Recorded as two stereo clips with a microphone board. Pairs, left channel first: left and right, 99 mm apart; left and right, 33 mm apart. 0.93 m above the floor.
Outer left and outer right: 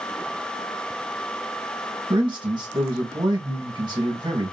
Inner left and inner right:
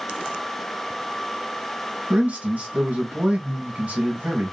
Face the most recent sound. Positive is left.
turn(degrees=-50)  # may be behind; listen again after turning